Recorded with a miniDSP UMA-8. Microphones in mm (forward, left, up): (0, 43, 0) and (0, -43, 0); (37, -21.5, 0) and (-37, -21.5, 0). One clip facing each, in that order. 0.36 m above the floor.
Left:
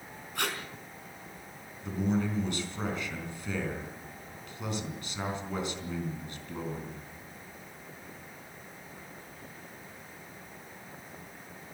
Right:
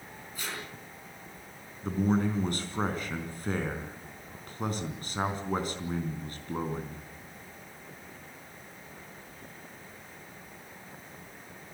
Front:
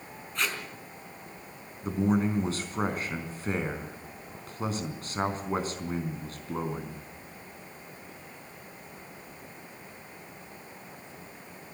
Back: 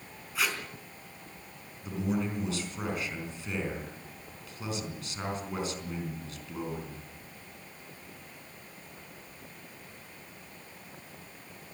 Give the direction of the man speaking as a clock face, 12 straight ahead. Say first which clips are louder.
Right 3 dB, front 5 dB; 2 o'clock.